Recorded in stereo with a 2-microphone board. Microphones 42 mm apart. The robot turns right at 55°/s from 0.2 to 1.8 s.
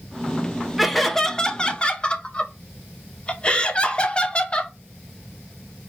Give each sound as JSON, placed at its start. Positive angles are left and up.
{"t": 0.8, "sound": "laughter", "azimuth_deg": -5, "distance_m": 0.7}